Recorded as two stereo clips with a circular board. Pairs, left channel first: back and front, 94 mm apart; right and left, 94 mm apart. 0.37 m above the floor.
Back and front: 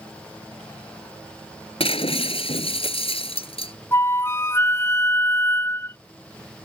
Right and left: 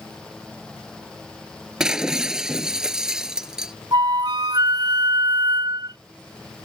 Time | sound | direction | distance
1.8 | breaking glass | 175° left | ?
3.9 | a flute | 120° left | ?